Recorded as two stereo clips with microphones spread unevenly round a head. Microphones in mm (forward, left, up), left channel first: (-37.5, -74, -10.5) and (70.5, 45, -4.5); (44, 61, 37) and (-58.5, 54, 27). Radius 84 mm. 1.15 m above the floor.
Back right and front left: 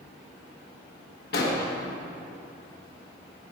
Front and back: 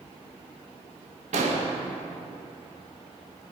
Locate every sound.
1.3 s an explosion: 170° right, 1.2 m